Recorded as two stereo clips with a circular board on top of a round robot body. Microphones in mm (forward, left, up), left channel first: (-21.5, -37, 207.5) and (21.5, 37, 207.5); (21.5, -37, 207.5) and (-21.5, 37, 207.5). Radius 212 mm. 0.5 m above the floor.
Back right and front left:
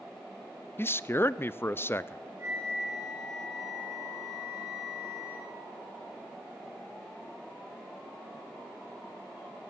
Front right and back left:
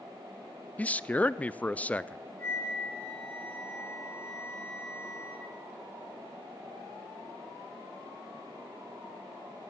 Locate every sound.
0.8 s a man speaking: 110° right, 0.7 m
2.4 s a flute: 5° left, 6.5 m